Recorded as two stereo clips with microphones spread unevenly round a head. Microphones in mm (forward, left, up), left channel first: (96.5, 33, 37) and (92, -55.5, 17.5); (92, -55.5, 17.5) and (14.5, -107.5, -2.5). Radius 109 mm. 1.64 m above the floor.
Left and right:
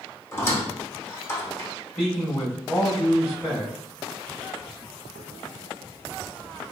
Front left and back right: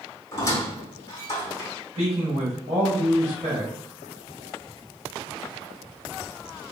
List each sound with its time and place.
0.3 s a squeak: 55° left, 0.8 m
1.9 s a man speaking: 160° left, 1.1 m